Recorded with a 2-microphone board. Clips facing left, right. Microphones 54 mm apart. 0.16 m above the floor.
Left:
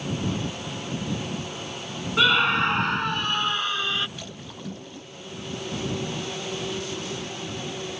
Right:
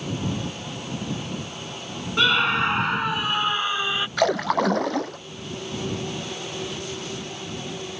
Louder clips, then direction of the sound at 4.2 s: Right 19 dB; 75° right (ahead or behind).